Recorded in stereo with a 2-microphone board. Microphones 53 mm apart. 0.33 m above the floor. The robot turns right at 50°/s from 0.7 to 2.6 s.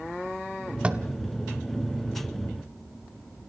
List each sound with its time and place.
0.8 s tapping: 25° right (ahead or behind), 1.2 m; by 1.0 s 15° right (ahead or behind), 1.2 m